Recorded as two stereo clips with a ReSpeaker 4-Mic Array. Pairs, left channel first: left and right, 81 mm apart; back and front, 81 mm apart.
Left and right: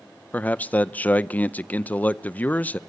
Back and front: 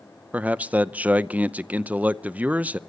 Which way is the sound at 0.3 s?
50° left.